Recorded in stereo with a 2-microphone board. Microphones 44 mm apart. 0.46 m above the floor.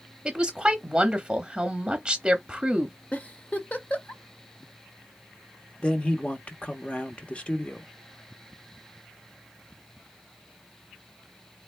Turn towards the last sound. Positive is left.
turn(degrees=25)  # may be behind; listen again after turning